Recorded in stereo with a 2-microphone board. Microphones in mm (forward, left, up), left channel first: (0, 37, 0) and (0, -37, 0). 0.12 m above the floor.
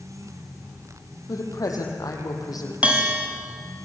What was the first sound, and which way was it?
A woman speaking, 50° left (ahead or behind).